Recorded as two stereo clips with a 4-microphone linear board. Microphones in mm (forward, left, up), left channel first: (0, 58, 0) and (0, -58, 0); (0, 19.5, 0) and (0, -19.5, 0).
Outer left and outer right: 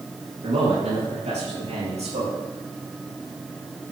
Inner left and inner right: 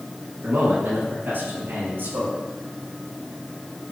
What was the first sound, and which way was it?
A man speaking, 70° right (ahead or behind).